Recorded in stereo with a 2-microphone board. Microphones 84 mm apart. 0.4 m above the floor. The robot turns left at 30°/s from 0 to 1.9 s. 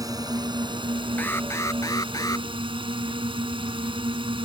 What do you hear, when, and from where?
0.0 s a drone: 45° right; by 4.5 s 100° right
1.2 s an alarm: 20° left (ahead or behind); by 2.5 s 40° left (ahead or behind)